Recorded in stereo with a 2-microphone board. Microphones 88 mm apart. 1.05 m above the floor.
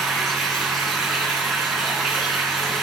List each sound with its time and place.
0.0 s running water: 5° right (ahead or behind), 5 m